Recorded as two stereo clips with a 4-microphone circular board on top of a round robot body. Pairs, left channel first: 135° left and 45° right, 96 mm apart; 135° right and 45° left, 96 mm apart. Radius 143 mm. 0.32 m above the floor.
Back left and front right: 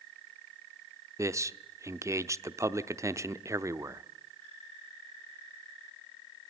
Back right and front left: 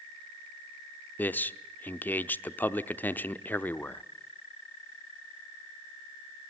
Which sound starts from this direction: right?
A man speaking, at 1.2 s.